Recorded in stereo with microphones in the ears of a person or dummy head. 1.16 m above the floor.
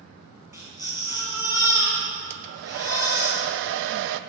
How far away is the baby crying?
About 5 m.